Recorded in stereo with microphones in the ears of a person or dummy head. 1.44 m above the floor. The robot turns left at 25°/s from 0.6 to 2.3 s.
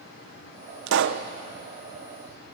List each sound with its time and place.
0.9 s a pop: 70° right (ahead or behind), 1.0 m; by 1.2 s 60° right (ahead or behind), 1.0 m